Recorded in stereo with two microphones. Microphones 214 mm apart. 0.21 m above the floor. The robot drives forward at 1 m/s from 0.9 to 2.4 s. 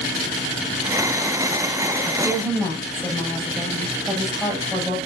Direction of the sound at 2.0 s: 5° right (ahead or behind).